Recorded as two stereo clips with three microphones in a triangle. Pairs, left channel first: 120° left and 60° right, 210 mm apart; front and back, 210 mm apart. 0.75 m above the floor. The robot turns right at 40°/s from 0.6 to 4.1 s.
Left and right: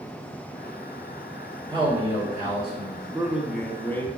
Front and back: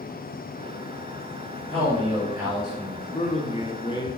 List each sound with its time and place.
1.7 s a man speaking: 120° right, 1.7 m; by 3.0 s 65° right, 1.7 m
3.1 s a man speaking: 15° left, 0.6 m; by 4.1 s 55° left, 0.6 m